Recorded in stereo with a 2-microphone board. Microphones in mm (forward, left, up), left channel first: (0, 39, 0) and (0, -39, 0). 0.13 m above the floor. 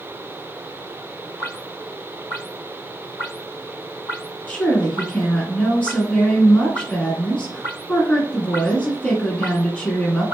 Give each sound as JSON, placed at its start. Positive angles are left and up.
{"t": 4.5, "sound": "a woman speaking", "side_deg": 15, "distance_m": 1.1}